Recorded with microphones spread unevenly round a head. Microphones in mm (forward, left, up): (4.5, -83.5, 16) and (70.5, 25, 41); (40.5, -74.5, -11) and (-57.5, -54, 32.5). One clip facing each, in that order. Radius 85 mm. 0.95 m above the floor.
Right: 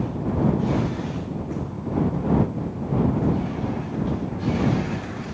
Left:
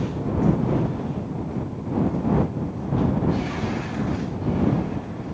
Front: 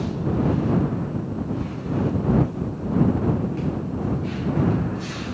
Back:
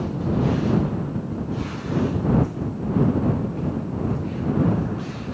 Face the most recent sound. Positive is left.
No sound to turn to.